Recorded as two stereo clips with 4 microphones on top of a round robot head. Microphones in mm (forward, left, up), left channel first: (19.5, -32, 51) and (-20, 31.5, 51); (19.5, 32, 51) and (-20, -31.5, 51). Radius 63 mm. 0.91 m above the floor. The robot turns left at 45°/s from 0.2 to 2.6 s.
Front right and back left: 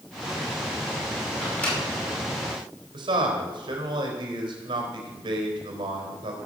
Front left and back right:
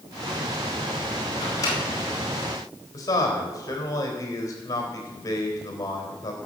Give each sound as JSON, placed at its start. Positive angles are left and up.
{"t": 1.4, "sound": "a microwave", "azimuth_deg": 20, "distance_m": 5.0}
{"t": 2.9, "sound": "a man speaking", "azimuth_deg": 105, "distance_m": 3.5}